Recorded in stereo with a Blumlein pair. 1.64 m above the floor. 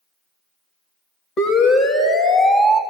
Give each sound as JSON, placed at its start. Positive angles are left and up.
{"t": 1.4, "sound": "a siren", "azimuth_deg": 35, "distance_m": 4.0}